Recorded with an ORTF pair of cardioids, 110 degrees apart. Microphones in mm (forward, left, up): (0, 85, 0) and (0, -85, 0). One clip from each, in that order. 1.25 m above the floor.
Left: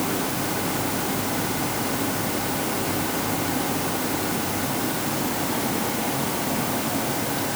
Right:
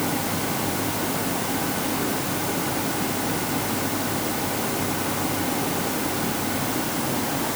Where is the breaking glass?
No breaking glass in this recording.